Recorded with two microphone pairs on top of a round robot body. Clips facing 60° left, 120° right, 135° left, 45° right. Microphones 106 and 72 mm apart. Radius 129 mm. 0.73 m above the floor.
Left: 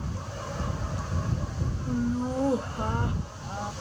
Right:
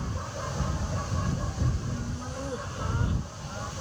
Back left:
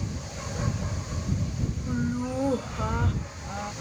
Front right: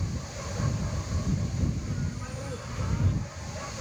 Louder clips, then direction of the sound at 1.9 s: Left 9 dB, back left 8 dB; 90° left.